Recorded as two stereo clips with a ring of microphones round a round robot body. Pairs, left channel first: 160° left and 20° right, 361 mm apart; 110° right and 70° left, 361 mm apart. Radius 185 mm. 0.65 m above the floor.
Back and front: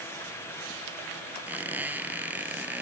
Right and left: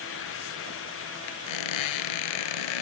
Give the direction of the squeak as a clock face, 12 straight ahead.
4 o'clock.